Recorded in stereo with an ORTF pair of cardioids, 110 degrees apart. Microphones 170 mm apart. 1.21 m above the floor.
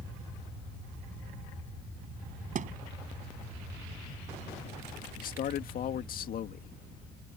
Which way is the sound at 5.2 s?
55° left.